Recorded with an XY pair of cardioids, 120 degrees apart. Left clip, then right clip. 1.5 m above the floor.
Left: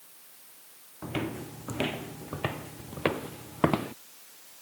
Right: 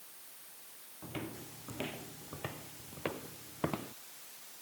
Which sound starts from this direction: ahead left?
Footsteps, at 1.0 s.